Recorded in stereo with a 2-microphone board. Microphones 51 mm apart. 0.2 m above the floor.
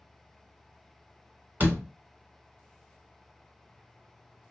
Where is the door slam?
40° right (ahead or behind), 1.1 m.